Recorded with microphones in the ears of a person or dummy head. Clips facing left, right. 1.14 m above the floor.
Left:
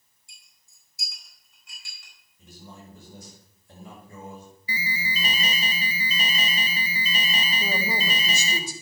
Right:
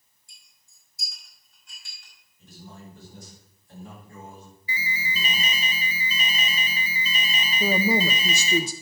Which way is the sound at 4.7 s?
30° left (ahead or behind).